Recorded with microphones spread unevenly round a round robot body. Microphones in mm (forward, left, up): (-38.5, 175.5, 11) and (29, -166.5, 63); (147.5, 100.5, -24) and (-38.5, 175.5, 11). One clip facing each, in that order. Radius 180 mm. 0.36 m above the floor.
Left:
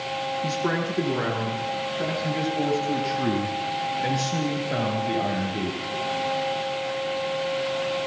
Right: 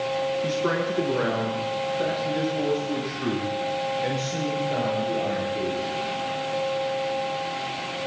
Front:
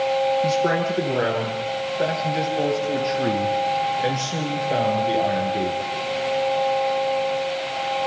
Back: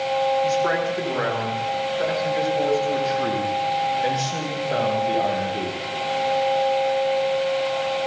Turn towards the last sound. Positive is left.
turn(degrees=55)